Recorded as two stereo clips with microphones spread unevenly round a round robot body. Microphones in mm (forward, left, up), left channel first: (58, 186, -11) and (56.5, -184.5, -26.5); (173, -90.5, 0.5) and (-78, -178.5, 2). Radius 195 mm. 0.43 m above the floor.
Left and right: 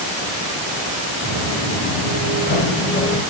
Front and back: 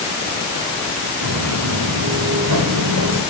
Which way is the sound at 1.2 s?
165° left.